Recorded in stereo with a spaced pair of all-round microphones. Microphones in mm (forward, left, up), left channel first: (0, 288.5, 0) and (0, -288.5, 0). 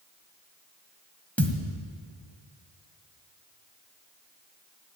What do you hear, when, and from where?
1.4 s a thud: centre (ahead or behind), 1.6 m